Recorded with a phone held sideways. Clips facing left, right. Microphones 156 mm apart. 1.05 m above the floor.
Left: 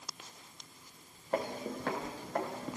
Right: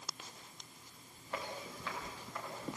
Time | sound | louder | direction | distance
1.3 | footsteps | left 9 dB | 50° left (ahead or behind) | 3 m